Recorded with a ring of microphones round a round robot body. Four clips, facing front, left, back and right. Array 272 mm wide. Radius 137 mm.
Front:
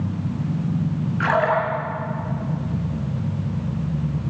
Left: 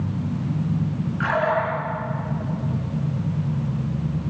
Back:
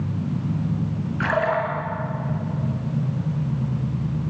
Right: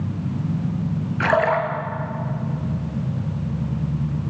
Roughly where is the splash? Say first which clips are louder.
Right 3 dB, front 2 dB; right.